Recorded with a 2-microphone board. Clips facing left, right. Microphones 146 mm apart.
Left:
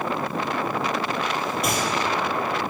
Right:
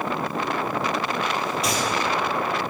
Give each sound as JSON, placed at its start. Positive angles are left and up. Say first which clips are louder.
{"t": 1.6, "sound": "a gunshot", "louder": "even", "side_deg": 55, "distance_m": 3.0}